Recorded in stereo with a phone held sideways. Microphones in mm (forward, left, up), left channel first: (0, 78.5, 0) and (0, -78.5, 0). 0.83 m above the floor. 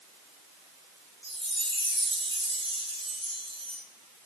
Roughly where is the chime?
Right.